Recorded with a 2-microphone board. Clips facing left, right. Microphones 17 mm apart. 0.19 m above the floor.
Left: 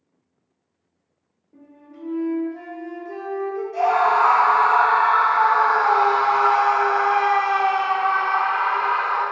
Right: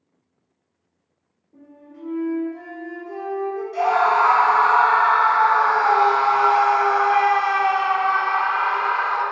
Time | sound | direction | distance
1.5 | a flute | 65° left (ahead or behind) | 1.9 m
3.7 | a scream | 30° right (ahead or behind) | 1.3 m